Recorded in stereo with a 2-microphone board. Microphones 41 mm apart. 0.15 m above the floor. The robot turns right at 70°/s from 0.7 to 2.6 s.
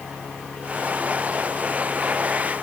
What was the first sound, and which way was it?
Only background noise.